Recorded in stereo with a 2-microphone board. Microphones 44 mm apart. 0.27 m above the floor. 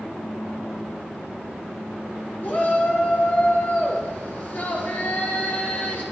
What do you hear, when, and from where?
2.4 s a shout: 40° left (ahead or behind), 5 m